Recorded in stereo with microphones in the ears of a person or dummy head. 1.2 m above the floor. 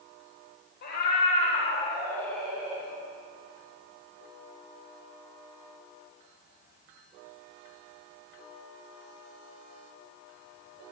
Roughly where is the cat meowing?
Left.